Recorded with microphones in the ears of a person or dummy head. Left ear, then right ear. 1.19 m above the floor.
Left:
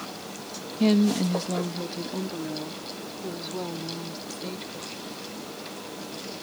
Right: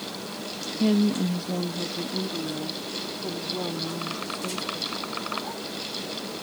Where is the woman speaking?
35° left (ahead or behind); by 5.2 s 15° left (ahead or behind).